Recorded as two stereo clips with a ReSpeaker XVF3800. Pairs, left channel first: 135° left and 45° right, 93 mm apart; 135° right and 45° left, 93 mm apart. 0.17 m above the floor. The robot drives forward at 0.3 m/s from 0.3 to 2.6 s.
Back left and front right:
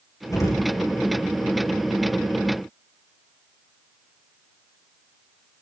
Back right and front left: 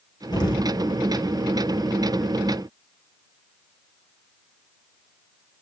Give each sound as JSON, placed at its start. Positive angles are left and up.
{"t": 0.3, "sound": "an explosion", "azimuth_deg": -170, "distance_m": 1.9}